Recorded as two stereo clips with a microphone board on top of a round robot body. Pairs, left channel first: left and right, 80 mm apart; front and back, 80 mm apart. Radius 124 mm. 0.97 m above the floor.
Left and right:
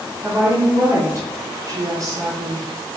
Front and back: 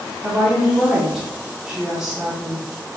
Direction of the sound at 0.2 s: 95° right.